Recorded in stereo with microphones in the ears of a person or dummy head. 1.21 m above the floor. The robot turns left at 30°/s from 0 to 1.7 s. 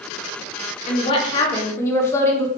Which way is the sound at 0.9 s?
35° left (ahead or behind).